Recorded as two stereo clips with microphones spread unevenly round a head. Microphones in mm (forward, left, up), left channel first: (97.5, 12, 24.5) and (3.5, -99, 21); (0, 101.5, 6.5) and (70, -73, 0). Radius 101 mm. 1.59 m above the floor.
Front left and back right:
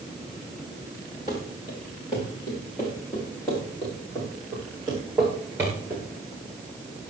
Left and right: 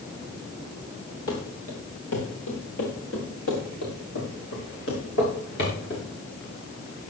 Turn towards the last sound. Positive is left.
turn(degrees=150)